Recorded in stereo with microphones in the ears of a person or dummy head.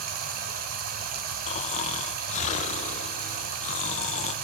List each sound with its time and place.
0.0 s running water: 55° right (ahead or behind), 2 m
1.5 s snoring: 40° left (ahead or behind), 1.3 m